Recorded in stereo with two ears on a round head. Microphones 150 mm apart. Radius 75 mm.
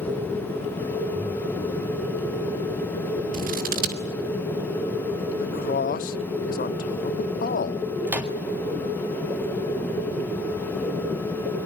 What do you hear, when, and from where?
3.3 s scissors: 55° right (ahead or behind), 2.5 m
5.4 s a man speaking: 50° left (ahead or behind), 0.7 m
8.1 s a microwave: 10° right (ahead or behind), 2.0 m